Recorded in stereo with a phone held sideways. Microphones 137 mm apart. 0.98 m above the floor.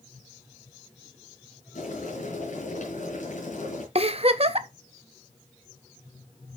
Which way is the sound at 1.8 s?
65° left (ahead or behind).